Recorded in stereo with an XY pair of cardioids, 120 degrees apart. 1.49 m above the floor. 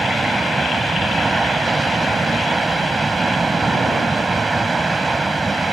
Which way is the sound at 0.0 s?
15° right.